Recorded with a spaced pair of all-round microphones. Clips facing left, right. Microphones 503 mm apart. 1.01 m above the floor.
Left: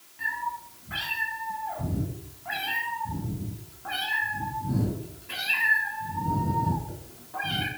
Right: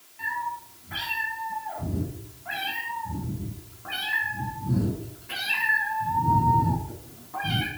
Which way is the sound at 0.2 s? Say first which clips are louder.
Right 1 dB; 30° left (ahead or behind).